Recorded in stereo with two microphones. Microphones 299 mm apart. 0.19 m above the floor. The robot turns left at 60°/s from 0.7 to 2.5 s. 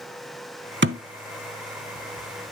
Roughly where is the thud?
Right.